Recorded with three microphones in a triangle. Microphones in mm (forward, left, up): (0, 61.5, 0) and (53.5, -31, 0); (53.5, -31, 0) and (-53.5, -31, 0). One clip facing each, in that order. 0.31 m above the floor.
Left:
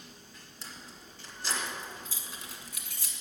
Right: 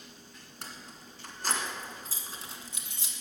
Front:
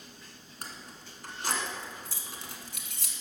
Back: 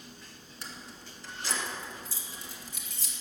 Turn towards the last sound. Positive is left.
turn(degrees=10)